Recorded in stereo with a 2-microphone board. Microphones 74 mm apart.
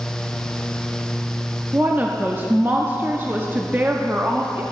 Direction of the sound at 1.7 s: 25° right (ahead or behind).